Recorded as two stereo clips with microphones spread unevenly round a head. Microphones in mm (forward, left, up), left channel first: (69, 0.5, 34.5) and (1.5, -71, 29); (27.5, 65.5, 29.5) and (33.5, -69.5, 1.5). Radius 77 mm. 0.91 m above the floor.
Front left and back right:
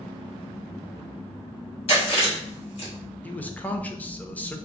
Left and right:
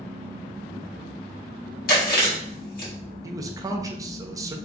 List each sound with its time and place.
1.9 s chewing: 75° left, 1.6 m
3.2 s a man speaking: 30° right, 0.7 m